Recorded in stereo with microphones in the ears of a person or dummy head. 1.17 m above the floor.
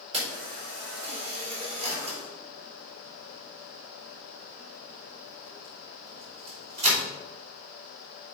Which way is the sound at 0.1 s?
35° right (ahead or behind).